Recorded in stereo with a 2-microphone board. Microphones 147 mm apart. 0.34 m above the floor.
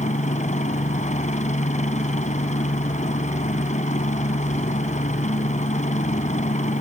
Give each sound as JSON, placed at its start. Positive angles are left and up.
{"t": 0.0, "sound": "a helicopter", "side_deg": 55}